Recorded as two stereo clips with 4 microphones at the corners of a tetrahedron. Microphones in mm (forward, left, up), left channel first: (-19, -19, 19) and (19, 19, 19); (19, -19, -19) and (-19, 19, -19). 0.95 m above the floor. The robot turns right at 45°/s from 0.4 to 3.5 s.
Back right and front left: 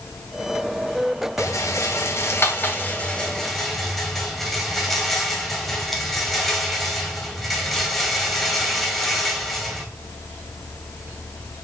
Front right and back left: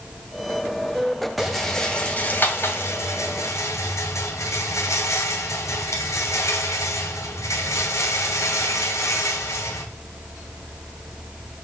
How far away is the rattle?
About 1.9 m.